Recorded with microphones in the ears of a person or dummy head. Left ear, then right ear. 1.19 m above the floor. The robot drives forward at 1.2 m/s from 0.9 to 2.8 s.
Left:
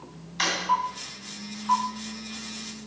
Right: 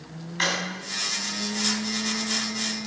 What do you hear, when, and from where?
0.4 s a drawer: 10° left (ahead or behind), 3 m